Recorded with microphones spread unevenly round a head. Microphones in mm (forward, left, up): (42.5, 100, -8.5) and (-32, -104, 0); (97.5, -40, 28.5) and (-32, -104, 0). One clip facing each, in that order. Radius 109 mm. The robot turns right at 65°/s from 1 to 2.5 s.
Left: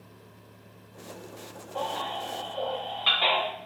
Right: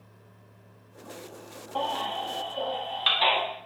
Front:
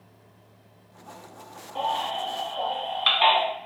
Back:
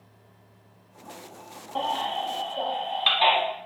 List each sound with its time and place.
1.8 s a baby crying: 130° right, 1.1 m; by 3.4 s 85° right, 1.1 m